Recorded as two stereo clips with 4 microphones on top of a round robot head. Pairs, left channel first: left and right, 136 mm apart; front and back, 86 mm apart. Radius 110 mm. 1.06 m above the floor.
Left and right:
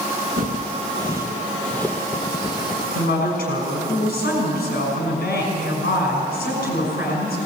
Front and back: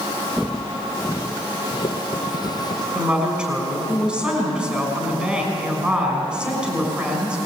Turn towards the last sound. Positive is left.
turn(degrees=105)